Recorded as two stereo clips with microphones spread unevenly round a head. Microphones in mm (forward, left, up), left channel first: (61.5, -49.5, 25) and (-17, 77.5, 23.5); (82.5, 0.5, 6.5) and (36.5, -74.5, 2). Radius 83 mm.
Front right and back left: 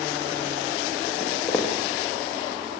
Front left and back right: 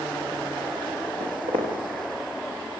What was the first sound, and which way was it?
Footsteps, 145° right.